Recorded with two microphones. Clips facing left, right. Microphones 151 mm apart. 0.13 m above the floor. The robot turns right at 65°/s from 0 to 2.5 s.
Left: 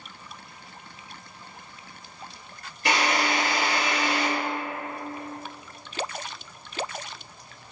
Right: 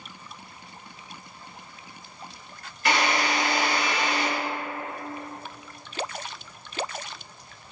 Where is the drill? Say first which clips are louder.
Even; 30° left (ahead or behind), 1.9 m.